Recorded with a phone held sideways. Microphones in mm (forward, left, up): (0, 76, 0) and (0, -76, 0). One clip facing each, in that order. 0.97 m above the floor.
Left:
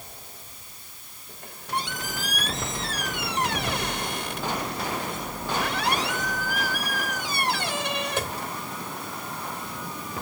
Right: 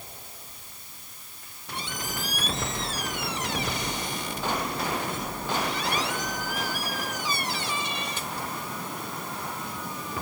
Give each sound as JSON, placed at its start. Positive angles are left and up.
{"t": 1.3, "sound": "a squeak", "side_deg": 70}